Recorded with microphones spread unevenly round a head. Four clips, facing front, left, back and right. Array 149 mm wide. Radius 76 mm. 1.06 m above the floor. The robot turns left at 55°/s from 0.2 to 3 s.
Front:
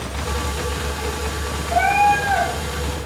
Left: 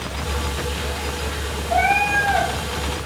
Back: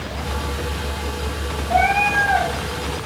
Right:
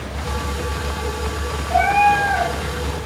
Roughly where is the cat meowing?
Behind right.